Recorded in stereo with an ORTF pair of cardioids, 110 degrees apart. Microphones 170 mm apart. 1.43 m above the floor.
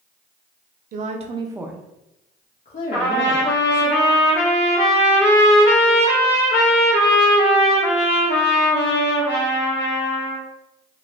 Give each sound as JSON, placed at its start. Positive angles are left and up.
{"t": 0.9, "sound": "a woman speaking", "azimuth_deg": -55, "distance_m": 0.7}
{"t": 2.9, "sound": "a trumpet", "azimuth_deg": 65, "distance_m": 1.5}